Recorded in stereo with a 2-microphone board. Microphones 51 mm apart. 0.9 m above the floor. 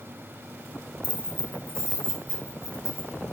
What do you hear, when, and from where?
1.0 s keys jangling: 25° right (ahead or behind), 0.5 m; by 3.2 s 85° right, 1.6 m